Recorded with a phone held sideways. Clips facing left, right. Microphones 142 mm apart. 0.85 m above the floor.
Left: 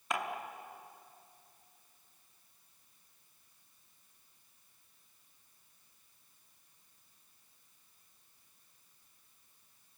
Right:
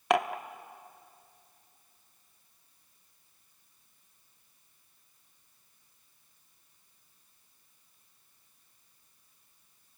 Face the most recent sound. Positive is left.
turn(degrees=-85)